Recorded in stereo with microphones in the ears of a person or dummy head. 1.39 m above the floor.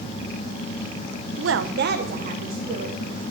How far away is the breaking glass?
No breaking glass in this recording.